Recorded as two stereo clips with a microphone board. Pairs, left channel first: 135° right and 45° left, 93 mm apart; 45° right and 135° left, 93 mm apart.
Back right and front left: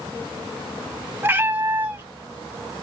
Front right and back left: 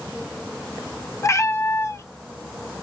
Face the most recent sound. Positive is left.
turn(degrees=-10)